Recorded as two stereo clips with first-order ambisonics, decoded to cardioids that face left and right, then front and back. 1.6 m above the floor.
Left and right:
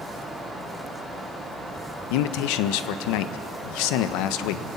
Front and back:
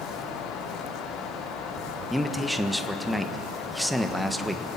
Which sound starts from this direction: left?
A man speaking, at 2.1 s.